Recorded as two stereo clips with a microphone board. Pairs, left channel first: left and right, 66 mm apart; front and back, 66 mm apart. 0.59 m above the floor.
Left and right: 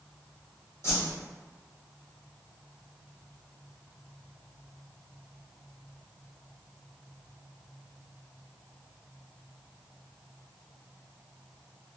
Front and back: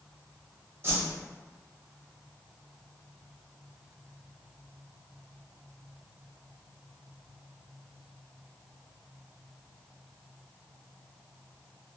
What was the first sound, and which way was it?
A whoosh, 130° left.